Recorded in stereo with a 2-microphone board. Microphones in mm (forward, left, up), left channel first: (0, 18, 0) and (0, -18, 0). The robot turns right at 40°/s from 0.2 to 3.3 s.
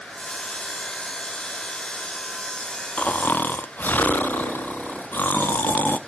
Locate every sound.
3.0 s snoring: 40° left (ahead or behind), 0.5 m; by 6.0 s 55° left (ahead or behind), 0.5 m